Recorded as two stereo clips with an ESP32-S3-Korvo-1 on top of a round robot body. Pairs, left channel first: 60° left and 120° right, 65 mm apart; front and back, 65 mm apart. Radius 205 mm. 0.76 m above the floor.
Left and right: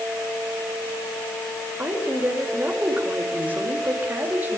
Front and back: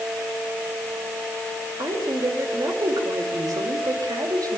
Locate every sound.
1.8 s a woman speaking: 175° left, 4.5 m